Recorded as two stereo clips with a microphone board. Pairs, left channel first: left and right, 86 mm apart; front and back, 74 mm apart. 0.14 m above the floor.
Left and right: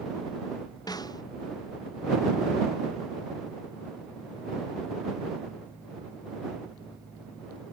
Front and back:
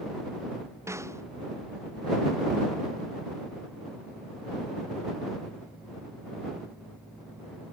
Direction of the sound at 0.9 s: 130° left.